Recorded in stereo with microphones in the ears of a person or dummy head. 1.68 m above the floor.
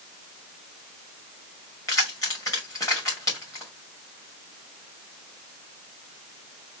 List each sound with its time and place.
1.9 s keys jangling: 15° left (ahead or behind), 2.5 m